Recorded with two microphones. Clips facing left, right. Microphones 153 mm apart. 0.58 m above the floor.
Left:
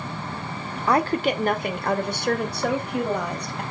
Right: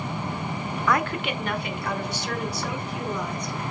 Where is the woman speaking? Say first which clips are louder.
Left 5 dB; 30° left (ahead or behind), 1.2 m; by 3.6 s 70° left (ahead or behind), 2.5 m.